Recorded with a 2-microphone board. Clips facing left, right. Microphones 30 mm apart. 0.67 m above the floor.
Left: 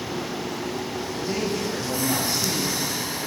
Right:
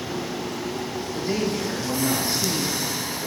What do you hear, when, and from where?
1.1 s a man speaking: 35° right (ahead or behind), 2.5 m